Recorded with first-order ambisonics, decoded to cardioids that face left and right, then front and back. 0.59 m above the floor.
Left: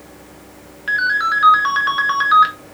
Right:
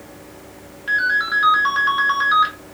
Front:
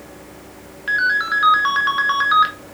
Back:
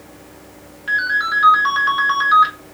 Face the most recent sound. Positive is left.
turn(degrees=55)